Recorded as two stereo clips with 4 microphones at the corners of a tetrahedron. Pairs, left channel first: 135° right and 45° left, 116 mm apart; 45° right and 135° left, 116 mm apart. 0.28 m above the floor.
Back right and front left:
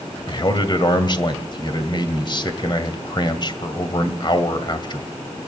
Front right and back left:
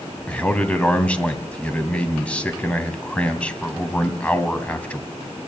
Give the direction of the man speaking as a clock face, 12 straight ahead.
4 o'clock.